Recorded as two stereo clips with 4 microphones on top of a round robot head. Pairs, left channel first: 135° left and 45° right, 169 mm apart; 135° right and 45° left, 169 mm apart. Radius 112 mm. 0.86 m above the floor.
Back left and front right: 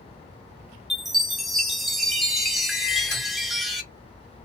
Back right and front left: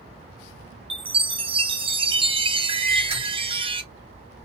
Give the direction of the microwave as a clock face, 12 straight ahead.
10 o'clock.